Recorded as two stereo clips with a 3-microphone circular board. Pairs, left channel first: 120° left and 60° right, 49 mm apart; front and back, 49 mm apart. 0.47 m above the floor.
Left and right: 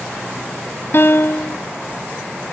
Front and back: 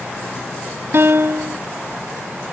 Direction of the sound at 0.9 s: 155° left.